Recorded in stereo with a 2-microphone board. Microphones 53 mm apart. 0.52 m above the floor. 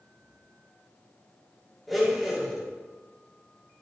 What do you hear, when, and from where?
1.9 s a blender: centre (ahead or behind), 7 m